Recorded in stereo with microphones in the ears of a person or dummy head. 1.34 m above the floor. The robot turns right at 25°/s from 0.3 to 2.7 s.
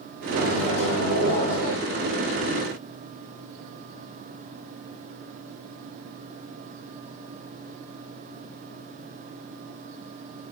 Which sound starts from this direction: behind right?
A microwave, at 0.3 s.